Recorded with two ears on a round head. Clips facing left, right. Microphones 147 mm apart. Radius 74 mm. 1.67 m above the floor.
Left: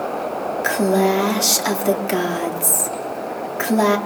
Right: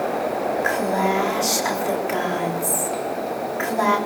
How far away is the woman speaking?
About 3.5 m.